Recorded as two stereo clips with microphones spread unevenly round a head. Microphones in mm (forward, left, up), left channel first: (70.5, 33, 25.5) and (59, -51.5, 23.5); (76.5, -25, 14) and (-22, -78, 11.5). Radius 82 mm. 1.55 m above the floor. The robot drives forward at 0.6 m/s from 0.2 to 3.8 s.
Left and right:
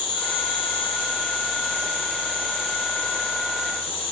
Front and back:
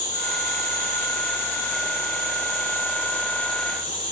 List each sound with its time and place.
0.0 s an insect: 80° left, 3.5 m; by 4.1 s 115° left, 4 m